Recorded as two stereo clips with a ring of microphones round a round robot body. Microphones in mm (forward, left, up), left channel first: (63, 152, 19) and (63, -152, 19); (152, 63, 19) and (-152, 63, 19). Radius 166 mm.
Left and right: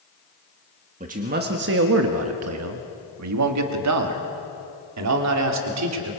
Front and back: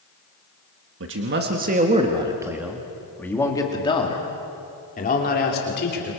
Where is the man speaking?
150° right, 1.5 m; by 6.1 s 60° right, 3 m.